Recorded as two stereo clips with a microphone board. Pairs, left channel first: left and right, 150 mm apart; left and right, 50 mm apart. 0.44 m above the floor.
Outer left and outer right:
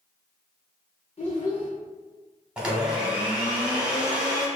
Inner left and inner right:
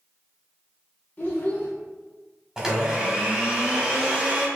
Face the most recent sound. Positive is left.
turn(degrees=-5)  # may be behind; listen again after turning